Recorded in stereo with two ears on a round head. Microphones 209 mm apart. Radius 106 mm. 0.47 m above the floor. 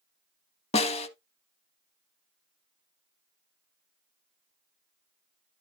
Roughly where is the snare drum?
Left.